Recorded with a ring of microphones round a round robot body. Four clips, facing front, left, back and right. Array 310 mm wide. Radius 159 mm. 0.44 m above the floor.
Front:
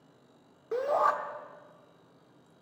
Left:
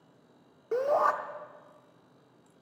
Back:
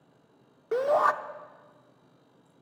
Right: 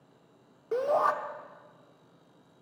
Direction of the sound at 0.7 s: 175° left.